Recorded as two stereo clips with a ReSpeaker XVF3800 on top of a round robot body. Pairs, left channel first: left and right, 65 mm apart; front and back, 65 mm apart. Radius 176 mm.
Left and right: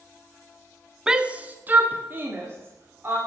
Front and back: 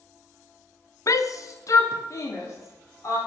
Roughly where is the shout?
Ahead.